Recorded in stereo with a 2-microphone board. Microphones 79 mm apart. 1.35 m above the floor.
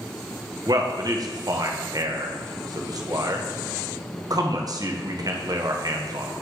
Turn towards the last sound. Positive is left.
turn(degrees=-50)  # may be behind; listen again after turning